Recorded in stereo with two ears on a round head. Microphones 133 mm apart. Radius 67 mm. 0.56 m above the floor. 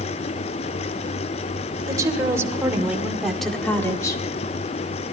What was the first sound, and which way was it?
A woman speaking, 25° right (ahead or behind).